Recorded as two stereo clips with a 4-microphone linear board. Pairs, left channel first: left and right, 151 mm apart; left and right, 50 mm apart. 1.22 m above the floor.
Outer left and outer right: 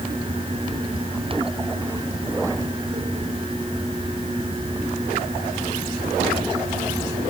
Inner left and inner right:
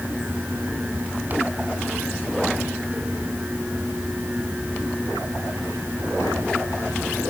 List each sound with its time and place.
Only background noise.